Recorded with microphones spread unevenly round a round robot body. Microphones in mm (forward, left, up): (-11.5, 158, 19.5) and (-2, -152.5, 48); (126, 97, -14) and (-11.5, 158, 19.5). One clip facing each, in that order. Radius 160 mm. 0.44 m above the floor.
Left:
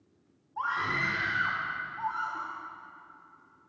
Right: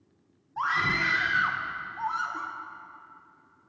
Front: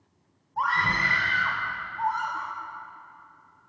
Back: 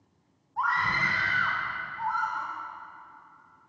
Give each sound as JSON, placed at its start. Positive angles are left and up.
{"t": 0.6, "sound": "a scream", "azimuth_deg": -65, "distance_m": 1.3}